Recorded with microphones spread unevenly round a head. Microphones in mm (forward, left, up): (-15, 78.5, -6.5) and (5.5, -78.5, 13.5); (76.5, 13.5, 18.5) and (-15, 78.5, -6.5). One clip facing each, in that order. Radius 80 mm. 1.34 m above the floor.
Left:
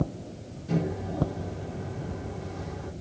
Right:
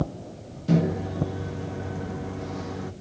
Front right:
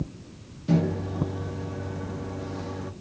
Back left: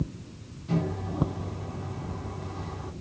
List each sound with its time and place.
0.7 s a microwave: 70° right, 0.8 m